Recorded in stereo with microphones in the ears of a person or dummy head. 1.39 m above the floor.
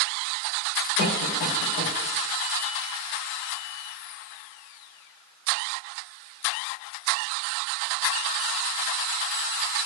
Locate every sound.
1.0 s a cough: 70° left (ahead or behind), 3 m